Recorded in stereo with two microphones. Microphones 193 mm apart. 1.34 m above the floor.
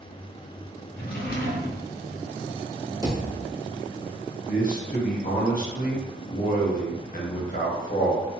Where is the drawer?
45° left (ahead or behind), 0.7 m.